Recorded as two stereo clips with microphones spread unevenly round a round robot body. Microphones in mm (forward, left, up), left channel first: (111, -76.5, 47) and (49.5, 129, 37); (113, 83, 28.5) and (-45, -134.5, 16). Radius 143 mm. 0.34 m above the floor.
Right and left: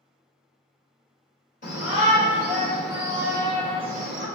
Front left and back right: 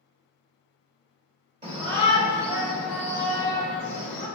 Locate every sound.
1.6 s a shout: 90° right, 1.3 m; by 4.3 s 105° left, 1.5 m